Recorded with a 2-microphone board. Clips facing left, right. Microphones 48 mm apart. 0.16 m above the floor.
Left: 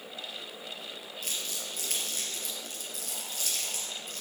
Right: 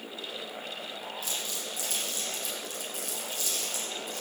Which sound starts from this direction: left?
Crumpling, at 1.2 s.